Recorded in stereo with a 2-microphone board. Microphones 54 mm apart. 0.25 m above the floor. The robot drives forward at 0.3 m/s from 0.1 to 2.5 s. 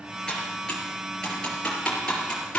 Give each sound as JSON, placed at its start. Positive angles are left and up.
{"t": 0.3, "sound": "typing on a keyboard", "side_deg": 15, "distance_m": 5.0}